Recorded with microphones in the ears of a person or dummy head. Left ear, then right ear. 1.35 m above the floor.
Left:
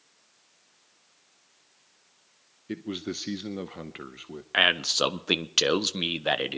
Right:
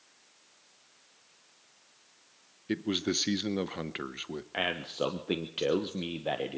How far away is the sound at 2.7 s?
About 0.7 m.